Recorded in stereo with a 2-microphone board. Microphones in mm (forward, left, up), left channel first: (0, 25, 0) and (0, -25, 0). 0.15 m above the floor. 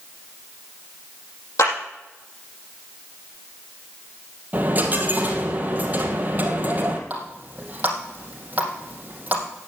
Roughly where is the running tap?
Right.